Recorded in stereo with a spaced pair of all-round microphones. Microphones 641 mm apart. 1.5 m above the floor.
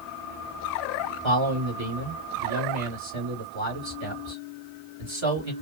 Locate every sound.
1.2 s a man speaking: 45° right (ahead or behind), 3.5 m